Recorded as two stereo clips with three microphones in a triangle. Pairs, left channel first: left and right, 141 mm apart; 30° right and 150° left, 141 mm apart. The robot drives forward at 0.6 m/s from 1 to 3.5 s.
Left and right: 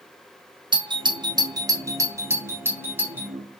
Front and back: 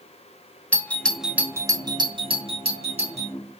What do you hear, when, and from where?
0.7 s a doorbell: 105° right, 0.6 m; by 3.3 s 170° right, 1.6 m